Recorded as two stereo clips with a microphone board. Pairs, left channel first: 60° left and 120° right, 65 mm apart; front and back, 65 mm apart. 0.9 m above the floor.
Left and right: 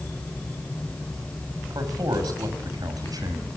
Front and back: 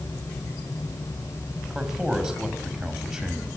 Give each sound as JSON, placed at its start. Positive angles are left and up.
{"t": 1.7, "sound": "a man speaking", "azimuth_deg": -100, "distance_m": 5.5}